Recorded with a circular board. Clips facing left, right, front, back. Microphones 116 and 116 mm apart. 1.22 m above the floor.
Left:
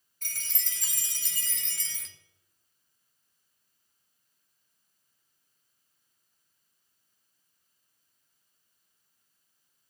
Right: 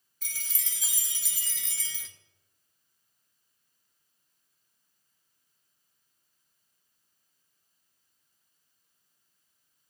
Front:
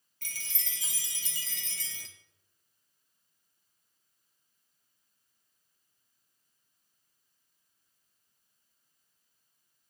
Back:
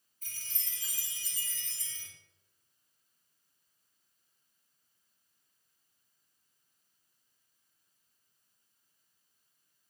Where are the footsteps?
No footsteps in this recording.